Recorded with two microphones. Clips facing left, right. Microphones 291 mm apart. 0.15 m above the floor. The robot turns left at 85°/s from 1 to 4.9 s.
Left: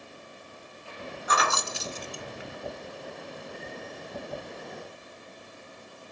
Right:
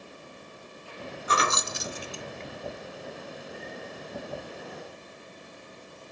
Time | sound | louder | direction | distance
1.3 | keys jangling | right 1 dB | 30° right (ahead or behind) | 0.8 m